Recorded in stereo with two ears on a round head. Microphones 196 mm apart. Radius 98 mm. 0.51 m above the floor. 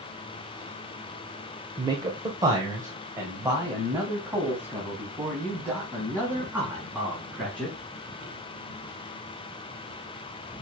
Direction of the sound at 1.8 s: 20° right (ahead or behind).